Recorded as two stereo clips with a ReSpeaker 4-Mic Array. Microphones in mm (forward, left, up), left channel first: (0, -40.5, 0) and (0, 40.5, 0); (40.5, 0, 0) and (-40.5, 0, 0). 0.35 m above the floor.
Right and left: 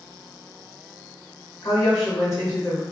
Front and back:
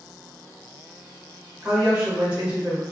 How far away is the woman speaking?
About 1.2 m.